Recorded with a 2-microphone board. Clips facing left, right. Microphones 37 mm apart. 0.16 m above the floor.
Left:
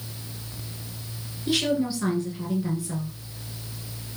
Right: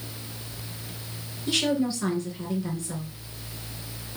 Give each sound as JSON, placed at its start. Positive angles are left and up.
{"t": 1.5, "sound": "a woman speaking", "side_deg": 5, "distance_m": 3.0}